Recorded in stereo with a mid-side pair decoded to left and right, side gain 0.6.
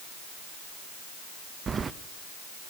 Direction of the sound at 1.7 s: 30° right.